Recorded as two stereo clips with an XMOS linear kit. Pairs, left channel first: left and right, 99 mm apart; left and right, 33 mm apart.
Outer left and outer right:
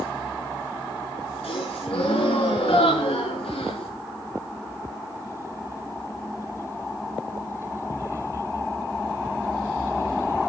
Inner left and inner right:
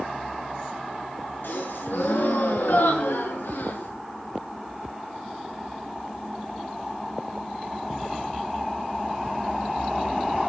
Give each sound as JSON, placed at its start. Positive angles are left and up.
{"t": 1.4, "sound": "a gasp", "side_deg": 75, "distance_m": 6.5}